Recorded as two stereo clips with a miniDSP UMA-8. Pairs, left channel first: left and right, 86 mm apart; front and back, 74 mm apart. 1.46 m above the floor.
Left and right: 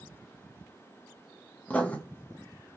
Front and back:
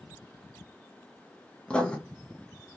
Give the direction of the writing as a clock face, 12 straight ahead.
10 o'clock.